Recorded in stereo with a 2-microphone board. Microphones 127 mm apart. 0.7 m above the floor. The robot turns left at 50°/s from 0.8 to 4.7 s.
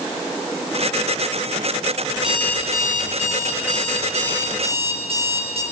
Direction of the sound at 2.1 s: Straight ahead.